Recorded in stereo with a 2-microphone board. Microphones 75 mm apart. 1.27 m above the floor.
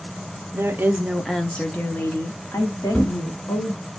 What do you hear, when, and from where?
0.5 s a woman speaking: 40° right (ahead or behind), 0.6 m; by 3.8 s 45° left (ahead or behind), 1.9 m
2.9 s a thud: 20° left (ahead or behind), 1.0 m